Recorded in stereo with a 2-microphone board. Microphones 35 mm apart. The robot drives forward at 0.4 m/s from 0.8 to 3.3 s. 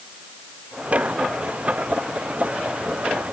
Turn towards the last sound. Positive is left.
No sound to turn to.